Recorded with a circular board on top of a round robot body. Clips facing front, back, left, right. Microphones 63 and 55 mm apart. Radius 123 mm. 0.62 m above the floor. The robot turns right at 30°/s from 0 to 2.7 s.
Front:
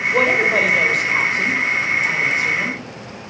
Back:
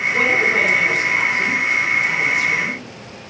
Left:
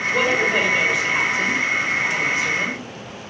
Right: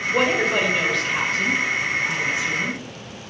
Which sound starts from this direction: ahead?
A woman speaking, at 0.1 s.